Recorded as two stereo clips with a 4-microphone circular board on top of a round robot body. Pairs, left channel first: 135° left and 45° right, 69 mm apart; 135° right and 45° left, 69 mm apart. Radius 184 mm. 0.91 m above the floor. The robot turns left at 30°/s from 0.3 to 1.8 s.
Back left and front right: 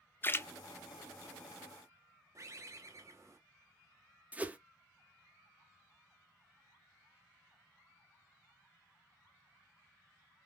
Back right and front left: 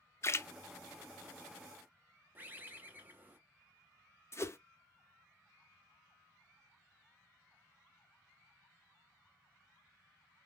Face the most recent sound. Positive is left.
turn(degrees=-105)